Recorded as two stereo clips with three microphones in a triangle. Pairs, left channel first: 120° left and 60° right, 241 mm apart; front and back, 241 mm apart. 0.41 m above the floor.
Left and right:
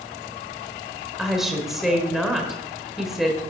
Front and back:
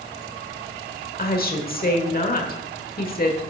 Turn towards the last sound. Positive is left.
turn(degrees=25)